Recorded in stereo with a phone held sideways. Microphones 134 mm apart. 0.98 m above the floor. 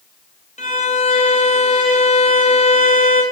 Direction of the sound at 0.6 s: 65° left (ahead or behind).